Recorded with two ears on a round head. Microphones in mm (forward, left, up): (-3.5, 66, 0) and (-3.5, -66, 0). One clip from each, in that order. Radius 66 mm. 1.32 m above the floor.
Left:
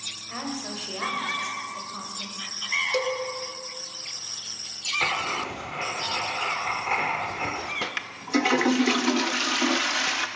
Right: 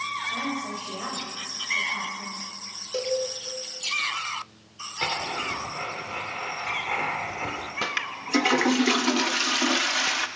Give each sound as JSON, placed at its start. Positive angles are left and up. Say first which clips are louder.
{"t": 0.3, "sound": "a woman speaking", "louder": "right 4 dB", "side_deg": 65, "distance_m": 5.5}
{"t": 2.9, "sound": "a cowbell", "louder": "left 1 dB", "side_deg": 35, "distance_m": 1.9}
{"t": 5.0, "sound": "writing", "louder": "right 1 dB", "side_deg": 20, "distance_m": 2.0}
{"t": 7.8, "sound": "a toilet flushing", "louder": "right 3 dB", "side_deg": -10, "distance_m": 0.6}